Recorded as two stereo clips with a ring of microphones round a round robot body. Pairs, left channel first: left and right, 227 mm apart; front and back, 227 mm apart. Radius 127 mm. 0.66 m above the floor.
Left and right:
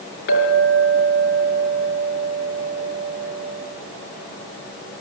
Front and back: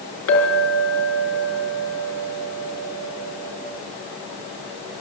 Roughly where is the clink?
Ahead left.